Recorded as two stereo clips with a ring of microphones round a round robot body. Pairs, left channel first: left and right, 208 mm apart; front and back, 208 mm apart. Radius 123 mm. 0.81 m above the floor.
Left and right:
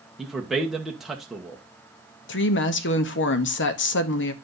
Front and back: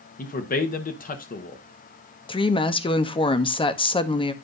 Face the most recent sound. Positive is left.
turn(degrees=65)